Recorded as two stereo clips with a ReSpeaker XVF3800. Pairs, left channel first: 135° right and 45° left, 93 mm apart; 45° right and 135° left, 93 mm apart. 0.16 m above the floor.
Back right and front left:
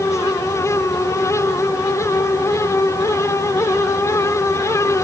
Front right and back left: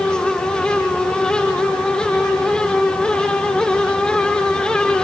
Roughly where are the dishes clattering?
I don't hear dishes clattering.